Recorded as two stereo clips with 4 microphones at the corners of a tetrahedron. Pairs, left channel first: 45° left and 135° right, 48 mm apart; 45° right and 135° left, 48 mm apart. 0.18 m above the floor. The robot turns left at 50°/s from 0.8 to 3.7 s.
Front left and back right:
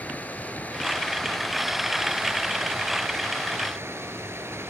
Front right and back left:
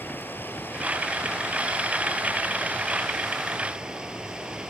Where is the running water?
10° right, 1.8 m; by 4.7 s 155° right, 1.8 m.